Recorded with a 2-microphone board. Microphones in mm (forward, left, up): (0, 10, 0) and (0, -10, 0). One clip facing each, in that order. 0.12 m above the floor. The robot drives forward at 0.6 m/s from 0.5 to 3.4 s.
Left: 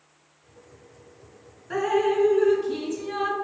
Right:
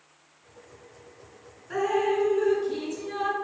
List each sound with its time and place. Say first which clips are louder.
1.7 s dripping: left 2 dB; 15° left (ahead or behind), 1.2 m; by 3.3 s 10° left (ahead or behind), 1.8 m